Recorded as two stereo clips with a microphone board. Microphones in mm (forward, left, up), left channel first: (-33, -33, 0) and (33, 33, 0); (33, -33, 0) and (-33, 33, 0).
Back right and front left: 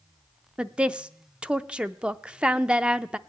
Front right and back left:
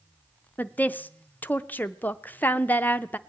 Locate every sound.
0.6 s a woman speaking: 15° right, 0.5 m